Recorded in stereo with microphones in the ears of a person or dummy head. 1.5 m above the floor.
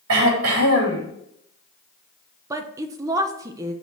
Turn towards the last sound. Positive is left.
turn(degrees=-15)  # may be behind; listen again after turning